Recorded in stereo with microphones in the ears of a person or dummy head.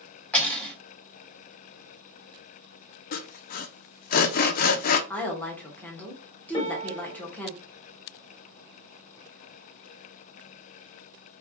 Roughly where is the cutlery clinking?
Centre.